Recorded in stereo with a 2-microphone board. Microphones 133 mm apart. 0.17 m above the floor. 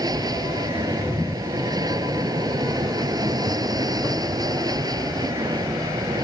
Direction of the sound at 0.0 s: 30° right (ahead or behind).